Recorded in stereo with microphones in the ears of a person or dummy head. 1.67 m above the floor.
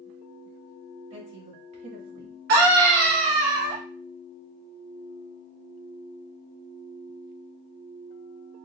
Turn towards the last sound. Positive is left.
turn(degrees=-65)  # may be behind; listen again after turning